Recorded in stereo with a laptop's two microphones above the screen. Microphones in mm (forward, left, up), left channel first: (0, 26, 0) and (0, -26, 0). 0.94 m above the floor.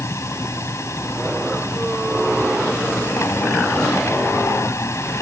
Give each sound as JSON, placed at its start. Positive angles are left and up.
{"t": 0.0, "sound": "a machine running", "side_deg": 65}